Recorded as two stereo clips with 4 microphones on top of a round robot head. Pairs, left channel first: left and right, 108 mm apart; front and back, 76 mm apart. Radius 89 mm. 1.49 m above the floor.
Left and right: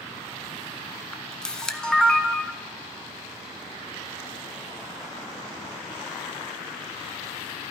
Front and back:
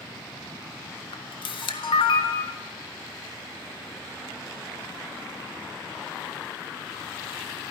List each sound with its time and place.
1.1 s a camera shutter: 5° left, 1.2 m